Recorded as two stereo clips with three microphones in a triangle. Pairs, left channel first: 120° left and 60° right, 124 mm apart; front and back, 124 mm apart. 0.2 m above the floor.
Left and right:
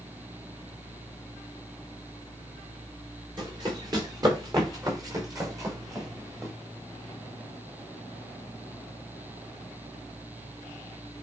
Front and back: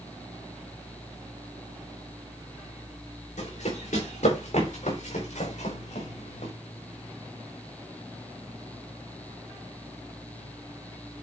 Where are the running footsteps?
5° right, 7.5 m; by 6.5 s 5° left, 5.5 m.